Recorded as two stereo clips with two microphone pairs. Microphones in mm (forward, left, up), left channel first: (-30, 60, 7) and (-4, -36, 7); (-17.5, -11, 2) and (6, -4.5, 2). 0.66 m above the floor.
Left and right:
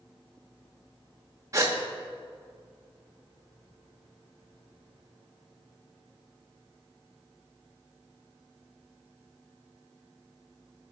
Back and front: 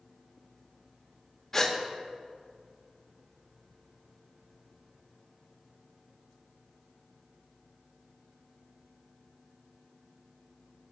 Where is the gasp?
105° right, 0.9 m.